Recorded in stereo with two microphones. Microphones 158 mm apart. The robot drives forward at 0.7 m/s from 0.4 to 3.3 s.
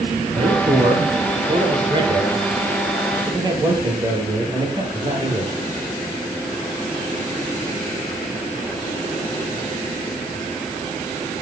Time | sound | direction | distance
0.3 | a man speaking | 40° right (ahead or behind) | 4.5 m